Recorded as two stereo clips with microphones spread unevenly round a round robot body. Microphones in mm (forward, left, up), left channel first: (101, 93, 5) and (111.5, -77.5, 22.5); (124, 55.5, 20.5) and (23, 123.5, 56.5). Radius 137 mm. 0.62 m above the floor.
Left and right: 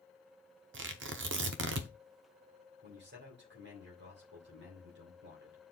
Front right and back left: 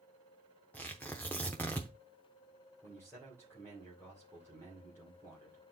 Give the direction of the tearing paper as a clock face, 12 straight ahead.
4 o'clock.